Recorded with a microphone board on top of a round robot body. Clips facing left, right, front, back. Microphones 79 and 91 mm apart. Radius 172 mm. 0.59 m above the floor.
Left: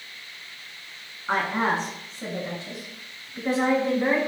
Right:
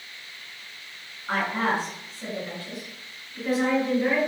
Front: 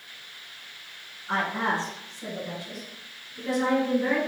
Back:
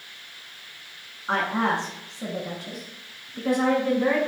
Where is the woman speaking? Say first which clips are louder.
Left 1 dB, back 3 dB; 160° left, 6.5 m; by 4.3 s 145° left, 5.5 m.